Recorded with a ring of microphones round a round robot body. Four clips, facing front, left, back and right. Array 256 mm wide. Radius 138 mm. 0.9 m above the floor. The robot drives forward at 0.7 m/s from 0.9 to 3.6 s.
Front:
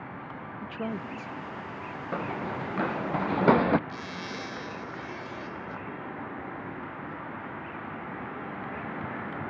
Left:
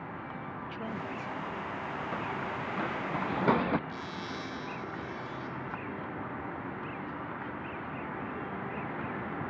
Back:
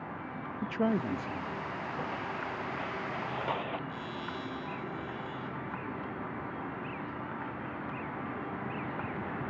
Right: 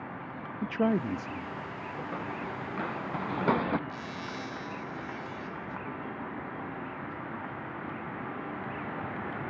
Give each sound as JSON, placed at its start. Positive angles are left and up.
{"t": 0.6, "sound": "a man speaking", "azimuth_deg": -110}
{"t": 2.1, "sound": "running footsteps", "azimuth_deg": 0}
{"t": 3.9, "sound": "a zipper", "azimuth_deg": -5}